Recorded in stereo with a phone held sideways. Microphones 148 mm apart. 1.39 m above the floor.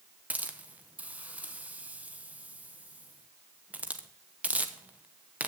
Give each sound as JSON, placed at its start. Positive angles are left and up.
{"t": 0.3, "sound": "a hiss", "side_deg": -10, "distance_m": 1.3}